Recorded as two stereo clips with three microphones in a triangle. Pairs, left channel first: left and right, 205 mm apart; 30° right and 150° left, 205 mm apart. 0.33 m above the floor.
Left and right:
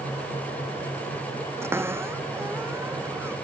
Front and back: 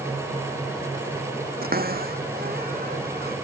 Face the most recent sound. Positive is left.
turn(degrees=-170)